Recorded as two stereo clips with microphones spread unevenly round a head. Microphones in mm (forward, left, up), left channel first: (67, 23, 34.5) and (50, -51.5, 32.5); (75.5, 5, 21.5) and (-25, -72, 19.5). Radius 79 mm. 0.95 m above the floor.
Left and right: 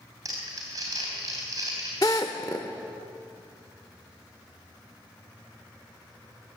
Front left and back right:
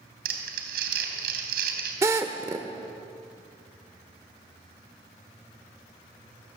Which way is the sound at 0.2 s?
170° right.